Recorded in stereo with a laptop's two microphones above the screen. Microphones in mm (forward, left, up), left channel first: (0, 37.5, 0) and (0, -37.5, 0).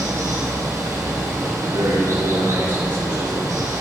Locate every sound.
0.0 s running water: 40° right (ahead or behind), 3.5 m
1.6 s a man speaking: 70° right (ahead or behind), 2.5 m